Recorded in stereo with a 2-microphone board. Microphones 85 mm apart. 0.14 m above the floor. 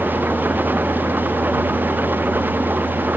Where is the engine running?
25° right (ahead or behind).